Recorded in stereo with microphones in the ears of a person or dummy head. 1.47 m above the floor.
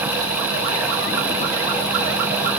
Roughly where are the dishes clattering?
I don't hear dishes clattering.